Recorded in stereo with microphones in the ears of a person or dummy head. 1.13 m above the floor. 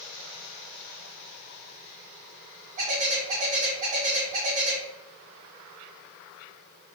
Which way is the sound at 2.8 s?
45° right (ahead or behind).